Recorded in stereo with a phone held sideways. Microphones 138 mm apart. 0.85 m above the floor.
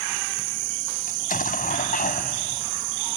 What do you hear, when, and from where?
1.1 s an explosion: 80° left